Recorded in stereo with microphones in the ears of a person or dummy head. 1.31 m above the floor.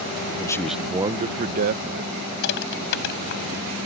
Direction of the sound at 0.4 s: 25° left (ahead or behind).